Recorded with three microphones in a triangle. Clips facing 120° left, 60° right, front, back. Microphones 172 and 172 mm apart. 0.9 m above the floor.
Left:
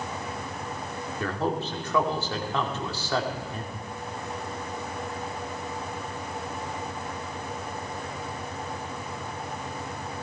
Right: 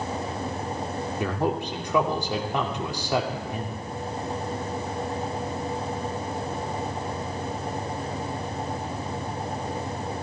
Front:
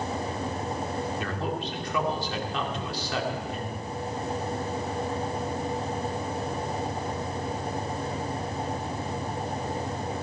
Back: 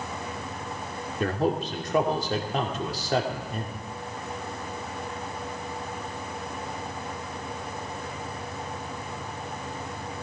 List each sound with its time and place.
1.2 s a man speaking: 135° right, 2.5 m